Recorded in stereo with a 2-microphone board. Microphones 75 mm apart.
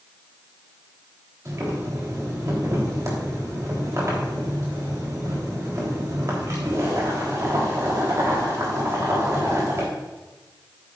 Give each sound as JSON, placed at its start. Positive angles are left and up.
{"t": 1.4, "sound": "boiling", "side_deg": -45, "distance_m": 3.5}